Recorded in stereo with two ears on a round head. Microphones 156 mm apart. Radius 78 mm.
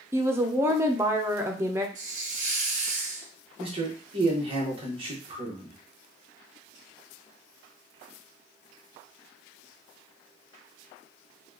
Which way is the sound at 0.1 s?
15° right (ahead or behind).